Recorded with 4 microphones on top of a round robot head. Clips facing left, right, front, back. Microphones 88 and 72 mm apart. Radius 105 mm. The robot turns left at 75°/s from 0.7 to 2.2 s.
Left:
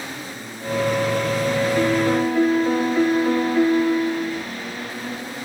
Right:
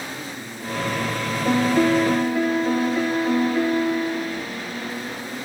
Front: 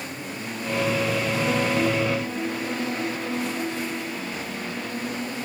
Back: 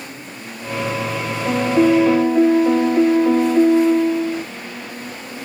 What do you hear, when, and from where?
1.4 s a piano: 125° right, 0.6 m; by 4.5 s straight behind, 0.6 m